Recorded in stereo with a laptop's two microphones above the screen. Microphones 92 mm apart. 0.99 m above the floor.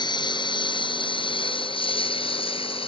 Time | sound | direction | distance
0.0 | a lawn mower | 55° left (ahead or behind) | ?